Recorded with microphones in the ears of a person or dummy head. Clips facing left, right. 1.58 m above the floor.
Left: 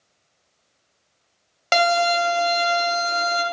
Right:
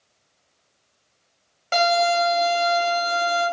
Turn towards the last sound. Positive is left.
turn(degrees=75)  # may be behind; listen again after turning